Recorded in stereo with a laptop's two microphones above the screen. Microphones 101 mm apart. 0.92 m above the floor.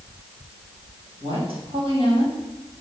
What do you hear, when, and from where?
1.2 s a woman speaking: 70° right (ahead or behind), 5 m